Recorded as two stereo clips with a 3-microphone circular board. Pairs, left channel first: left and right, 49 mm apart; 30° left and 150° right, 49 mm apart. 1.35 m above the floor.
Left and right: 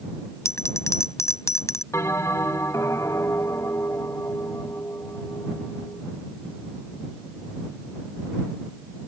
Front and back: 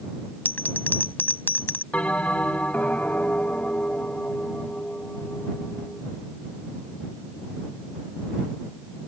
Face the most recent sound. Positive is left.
turn(degrees=90)